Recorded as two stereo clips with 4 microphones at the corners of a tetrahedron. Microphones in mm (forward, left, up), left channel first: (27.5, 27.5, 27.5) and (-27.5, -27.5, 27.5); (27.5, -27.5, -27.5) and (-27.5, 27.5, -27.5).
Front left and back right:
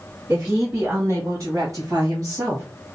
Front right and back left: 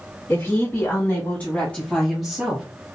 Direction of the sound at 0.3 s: 85° right.